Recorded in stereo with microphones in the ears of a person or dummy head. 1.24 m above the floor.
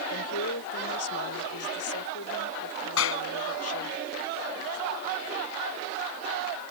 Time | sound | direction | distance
0.1 | a woman speaking | 85° left | ?
3.0 | a clap | 80° left | ?